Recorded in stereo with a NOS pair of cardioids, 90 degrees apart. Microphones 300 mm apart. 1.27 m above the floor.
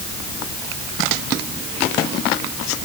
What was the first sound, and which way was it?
Only background noise.